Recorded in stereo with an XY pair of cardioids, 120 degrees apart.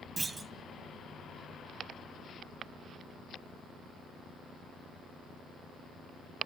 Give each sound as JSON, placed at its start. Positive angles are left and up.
{"t": 0.2, "sound": "a clunk", "azimuth_deg": -15, "distance_m": 0.7}